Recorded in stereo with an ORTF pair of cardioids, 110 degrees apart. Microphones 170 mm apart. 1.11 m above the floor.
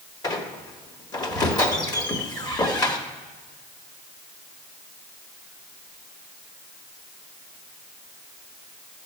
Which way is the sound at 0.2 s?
25° left.